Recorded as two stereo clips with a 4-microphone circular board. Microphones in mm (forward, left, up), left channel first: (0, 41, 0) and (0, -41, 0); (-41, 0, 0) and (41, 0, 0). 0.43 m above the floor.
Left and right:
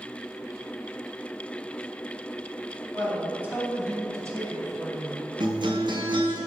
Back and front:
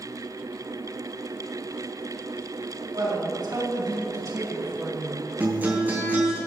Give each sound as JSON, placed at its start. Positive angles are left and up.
{"t": 2.9, "sound": "a man speaking", "azimuth_deg": -15, "distance_m": 3.5}
{"t": 5.4, "sound": "a guitar", "azimuth_deg": -70, "distance_m": 2.5}